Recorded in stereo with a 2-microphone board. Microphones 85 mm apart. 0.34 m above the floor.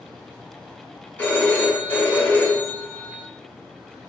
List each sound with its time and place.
1.2 s a phone ringing: 20° left (ahead or behind), 1.3 m